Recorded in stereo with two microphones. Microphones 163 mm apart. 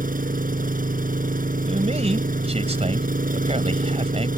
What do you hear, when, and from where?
0.0 s an engine running: 60° right (ahead or behind)
1.7 s a man speaking: 40° right (ahead or behind)